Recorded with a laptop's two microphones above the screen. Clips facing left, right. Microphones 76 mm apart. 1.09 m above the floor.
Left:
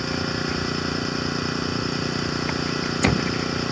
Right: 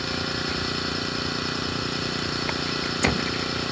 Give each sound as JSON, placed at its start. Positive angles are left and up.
{"t": 0.0, "sound": "an engine running", "side_deg": 5}